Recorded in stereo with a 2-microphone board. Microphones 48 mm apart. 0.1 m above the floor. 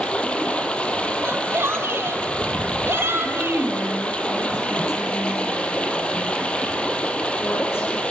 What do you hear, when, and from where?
0.0 s running water: 20° left (ahead or behind), 2 m
1.2 s a shout: 50° right (ahead or behind), 3 m
3.2 s a woman speaking: 60° left (ahead or behind), 8.5 m